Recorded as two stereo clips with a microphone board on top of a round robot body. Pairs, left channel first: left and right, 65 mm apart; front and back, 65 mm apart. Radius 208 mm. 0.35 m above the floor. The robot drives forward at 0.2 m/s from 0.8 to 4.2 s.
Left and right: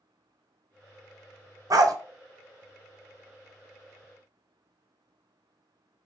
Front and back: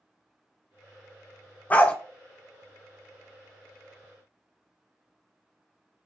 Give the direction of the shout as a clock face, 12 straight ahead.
I don't hear a shout.